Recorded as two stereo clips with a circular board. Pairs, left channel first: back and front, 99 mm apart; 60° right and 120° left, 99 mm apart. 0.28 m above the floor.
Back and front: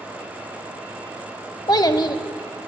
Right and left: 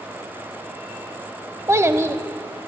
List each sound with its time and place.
1.7 s a child speaking: 165° left, 0.6 m